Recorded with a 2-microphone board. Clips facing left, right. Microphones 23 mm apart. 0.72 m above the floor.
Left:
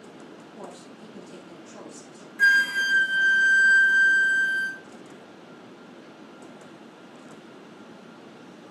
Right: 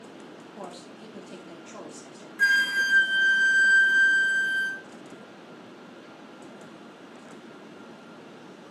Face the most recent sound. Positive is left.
turn(degrees=0)  # may be behind; listen again after turning